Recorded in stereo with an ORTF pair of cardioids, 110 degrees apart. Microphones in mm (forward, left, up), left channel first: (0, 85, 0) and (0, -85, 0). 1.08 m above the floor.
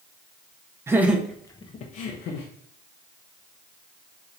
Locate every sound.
0.9 s laughter: 15° right, 0.8 m; by 2.5 s 75° left, 0.8 m